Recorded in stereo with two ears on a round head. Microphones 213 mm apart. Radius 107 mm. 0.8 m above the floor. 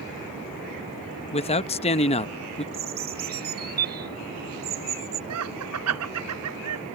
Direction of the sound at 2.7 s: 45° right (ahead or behind).